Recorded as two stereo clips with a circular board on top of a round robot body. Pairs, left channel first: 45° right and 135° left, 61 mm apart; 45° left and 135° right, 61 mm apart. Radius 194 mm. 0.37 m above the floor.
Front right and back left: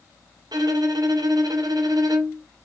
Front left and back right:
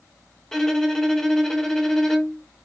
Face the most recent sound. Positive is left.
turn(degrees=125)